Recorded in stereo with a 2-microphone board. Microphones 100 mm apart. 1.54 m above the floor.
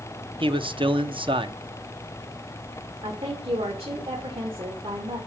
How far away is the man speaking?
About 0.8 m.